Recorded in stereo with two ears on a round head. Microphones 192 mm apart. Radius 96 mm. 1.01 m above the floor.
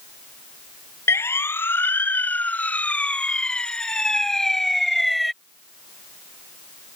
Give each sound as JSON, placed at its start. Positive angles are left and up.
{"t": 1.1, "sound": "a siren", "side_deg": 10}